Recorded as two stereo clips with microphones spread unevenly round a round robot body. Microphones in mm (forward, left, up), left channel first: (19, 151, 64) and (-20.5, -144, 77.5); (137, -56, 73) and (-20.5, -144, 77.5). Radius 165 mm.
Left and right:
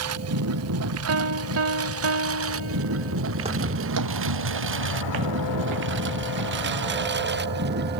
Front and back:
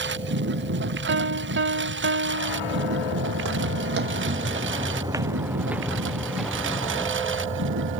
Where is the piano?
145° right.